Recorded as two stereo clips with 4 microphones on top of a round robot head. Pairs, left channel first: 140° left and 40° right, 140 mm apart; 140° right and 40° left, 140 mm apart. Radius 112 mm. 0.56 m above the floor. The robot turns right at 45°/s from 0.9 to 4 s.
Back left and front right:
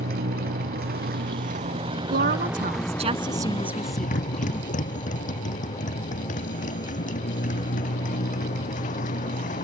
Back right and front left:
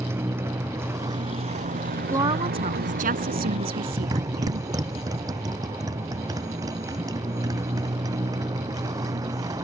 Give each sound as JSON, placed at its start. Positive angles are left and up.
{"t": 0.0, "sound": "a motorcycle", "azimuth_deg": -35}
{"t": 2.1, "sound": "a woman speaking", "azimuth_deg": -30}